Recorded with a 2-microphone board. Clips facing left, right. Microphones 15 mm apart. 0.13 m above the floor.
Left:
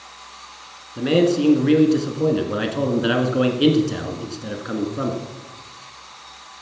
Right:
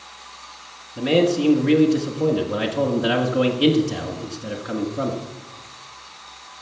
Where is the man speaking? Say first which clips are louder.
Left 1 dB; 10° left (ahead or behind), 1.2 m.